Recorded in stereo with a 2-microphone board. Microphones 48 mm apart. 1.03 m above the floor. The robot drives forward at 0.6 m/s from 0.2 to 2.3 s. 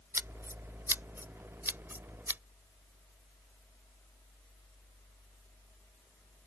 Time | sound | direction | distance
0.1 | scissors | 60° right (ahead or behind) | ?